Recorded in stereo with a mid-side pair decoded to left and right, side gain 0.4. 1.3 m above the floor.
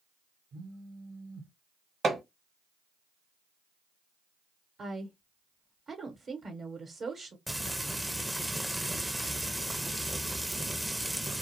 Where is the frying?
10° right, 0.5 m.